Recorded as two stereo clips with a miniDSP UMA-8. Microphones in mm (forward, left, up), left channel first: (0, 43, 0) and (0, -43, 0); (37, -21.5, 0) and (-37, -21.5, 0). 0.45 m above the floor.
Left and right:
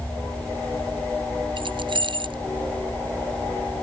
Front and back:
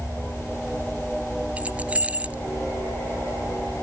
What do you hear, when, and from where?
1.6 s keys jangling: 110° right